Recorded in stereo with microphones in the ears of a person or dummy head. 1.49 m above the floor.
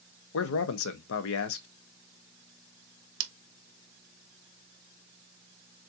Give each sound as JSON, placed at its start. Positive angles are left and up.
{"t": 0.3, "sound": "a man speaking", "side_deg": 70, "distance_m": 0.8}
{"t": 3.2, "sound": "scissors", "side_deg": -65, "distance_m": 0.9}